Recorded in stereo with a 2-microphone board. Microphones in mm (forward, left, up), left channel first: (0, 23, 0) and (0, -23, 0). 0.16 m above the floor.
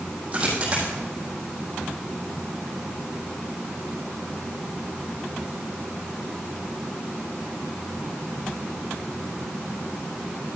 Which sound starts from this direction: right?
A dropped coin, at 0.3 s.